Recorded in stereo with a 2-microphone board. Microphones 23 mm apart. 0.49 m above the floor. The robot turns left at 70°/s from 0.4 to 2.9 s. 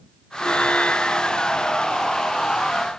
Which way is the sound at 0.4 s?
125° left.